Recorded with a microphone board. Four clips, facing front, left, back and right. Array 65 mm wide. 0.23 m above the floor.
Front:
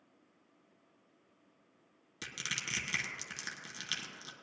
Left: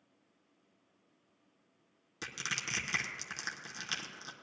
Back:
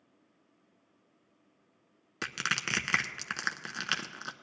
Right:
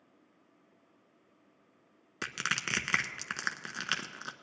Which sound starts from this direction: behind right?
Crushing, at 2.2 s.